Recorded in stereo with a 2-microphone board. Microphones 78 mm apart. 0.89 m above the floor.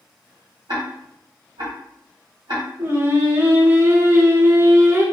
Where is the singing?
30° right (ahead or behind), 0.6 m.